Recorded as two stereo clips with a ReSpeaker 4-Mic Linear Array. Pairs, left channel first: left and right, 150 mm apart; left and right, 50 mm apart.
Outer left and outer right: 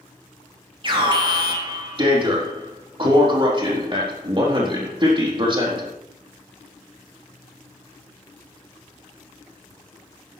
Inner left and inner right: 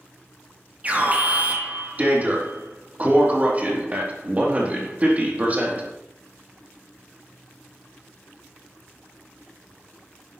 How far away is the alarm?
About 4 m.